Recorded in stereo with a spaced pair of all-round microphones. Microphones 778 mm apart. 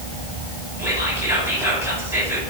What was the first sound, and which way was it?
Whispering, 5° right (ahead or behind).